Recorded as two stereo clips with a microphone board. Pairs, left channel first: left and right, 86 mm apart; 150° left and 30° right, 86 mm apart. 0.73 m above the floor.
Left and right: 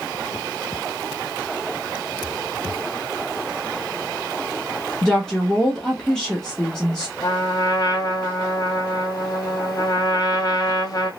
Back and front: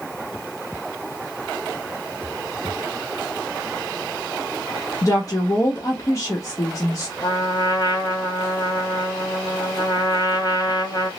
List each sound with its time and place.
5.0 s a woman speaking: 170° left, 0.8 m
7.2 s a trumpet: 125° left, 0.8 m